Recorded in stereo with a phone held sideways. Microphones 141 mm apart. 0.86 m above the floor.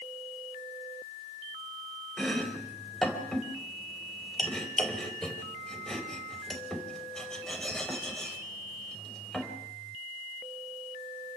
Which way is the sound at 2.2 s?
5° left (ahead or behind).